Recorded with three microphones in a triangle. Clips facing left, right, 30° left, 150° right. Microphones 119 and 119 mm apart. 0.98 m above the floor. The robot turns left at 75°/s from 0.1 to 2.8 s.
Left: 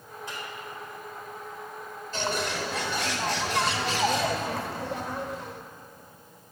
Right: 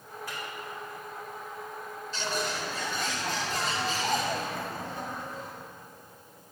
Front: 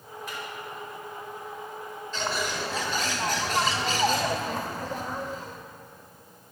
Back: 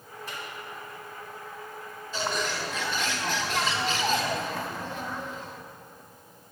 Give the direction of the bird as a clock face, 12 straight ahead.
8 o'clock.